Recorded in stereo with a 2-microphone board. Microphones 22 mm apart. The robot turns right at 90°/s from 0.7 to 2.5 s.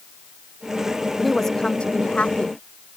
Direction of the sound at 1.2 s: 5° left.